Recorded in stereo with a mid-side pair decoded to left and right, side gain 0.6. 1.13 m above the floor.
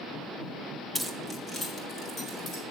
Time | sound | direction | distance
0.9 | keys jangling | 5° left | 0.7 m